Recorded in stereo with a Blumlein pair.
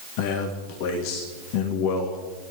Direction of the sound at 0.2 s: 45° left.